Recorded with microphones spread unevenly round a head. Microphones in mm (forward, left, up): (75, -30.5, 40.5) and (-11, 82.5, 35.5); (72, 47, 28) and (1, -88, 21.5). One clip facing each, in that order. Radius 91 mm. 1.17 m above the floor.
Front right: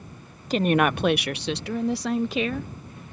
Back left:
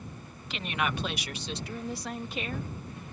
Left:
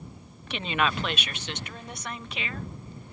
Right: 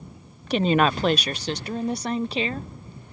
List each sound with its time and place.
0.5 s a woman speaking: 90° right; by 2.7 s 60° right